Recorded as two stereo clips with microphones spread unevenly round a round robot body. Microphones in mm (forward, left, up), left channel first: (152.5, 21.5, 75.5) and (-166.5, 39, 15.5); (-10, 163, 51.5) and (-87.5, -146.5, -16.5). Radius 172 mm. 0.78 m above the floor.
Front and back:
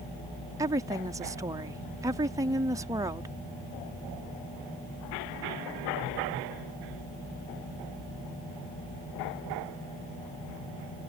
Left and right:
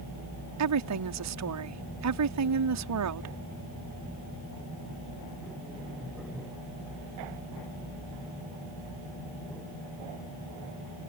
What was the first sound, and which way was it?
A woman speaking, 110° right.